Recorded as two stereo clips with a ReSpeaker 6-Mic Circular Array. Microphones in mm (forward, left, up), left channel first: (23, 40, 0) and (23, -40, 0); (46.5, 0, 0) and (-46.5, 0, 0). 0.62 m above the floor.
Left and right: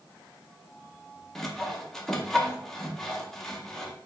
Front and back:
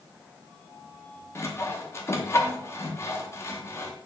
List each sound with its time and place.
1.4 s sawing: 10° left, 0.7 m